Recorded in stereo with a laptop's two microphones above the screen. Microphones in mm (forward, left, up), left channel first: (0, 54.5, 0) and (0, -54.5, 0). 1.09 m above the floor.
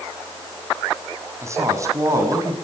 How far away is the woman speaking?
About 7.5 m.